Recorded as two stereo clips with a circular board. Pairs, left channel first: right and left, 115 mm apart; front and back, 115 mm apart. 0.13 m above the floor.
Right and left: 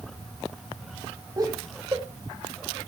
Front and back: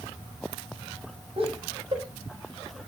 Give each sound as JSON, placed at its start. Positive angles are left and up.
{"t": 1.4, "sound": "laughter", "azimuth_deg": 145, "distance_m": 6.0}